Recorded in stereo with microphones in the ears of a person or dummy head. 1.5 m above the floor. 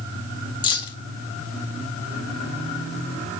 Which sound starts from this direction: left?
Keys jangling, at 0.6 s.